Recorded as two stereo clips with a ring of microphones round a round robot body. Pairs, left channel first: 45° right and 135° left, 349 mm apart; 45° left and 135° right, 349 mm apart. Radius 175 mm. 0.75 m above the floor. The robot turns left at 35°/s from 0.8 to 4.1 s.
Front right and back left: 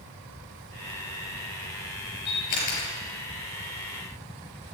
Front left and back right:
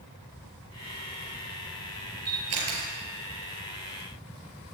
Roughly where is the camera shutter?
Right.